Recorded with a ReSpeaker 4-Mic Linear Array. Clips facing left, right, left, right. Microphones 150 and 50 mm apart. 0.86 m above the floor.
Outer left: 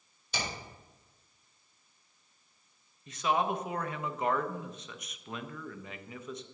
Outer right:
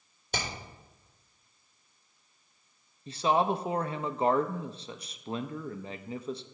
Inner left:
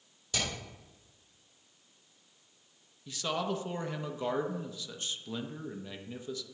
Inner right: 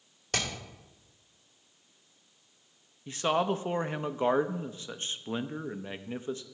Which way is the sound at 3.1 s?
30° right (ahead or behind).